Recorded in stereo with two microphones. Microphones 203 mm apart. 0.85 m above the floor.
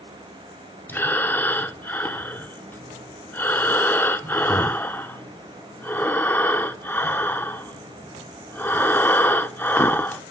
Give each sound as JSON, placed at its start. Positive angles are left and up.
{"t": 0.9, "sound": "breathing", "side_deg": 10, "distance_m": 0.5}